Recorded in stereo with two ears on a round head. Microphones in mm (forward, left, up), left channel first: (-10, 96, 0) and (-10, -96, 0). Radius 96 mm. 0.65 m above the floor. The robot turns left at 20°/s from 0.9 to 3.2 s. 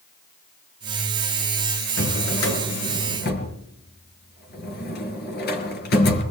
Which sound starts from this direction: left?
A drawer, at 2.0 s.